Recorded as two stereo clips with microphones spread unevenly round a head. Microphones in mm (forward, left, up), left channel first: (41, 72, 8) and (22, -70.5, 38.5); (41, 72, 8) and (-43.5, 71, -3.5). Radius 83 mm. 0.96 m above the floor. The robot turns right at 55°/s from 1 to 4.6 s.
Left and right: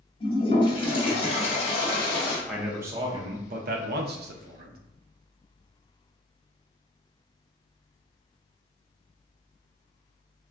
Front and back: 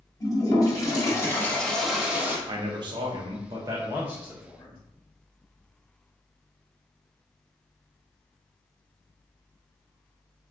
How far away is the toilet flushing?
About 1.1 m.